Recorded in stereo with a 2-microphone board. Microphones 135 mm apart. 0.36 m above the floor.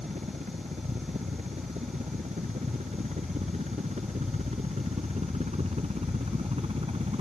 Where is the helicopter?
65° right (ahead or behind); by 7.2 s 50° right (ahead or behind).